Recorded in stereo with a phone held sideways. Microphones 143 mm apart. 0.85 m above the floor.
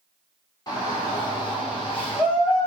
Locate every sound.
0.7 s a shout: 25° left (ahead or behind), 1.5 m; by 2.7 s 35° left (ahead or behind), 1.1 m